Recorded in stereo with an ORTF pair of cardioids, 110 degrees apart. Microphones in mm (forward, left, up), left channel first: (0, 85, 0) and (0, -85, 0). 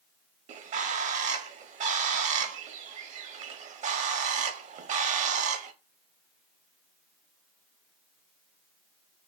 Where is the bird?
45° right, 0.6 m.